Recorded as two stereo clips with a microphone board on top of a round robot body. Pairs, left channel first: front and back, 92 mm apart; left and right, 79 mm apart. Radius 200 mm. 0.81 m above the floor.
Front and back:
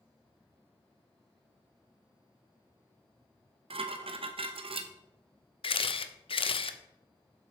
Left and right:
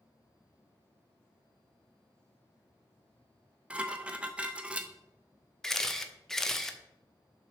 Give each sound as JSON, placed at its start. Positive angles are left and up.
{"t": 3.7, "sound": "dishes clattering", "azimuth_deg": -165, "distance_m": 0.6}
{"t": 5.6, "sound": "a camera shutter", "azimuth_deg": 5, "distance_m": 0.6}